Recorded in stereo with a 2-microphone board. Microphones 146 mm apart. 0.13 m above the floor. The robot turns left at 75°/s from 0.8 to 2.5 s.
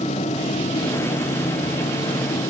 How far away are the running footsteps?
No running footsteps in this recording.